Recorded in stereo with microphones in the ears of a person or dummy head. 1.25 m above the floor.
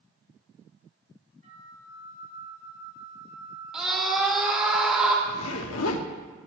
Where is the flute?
45° right (ahead or behind), 3.5 m.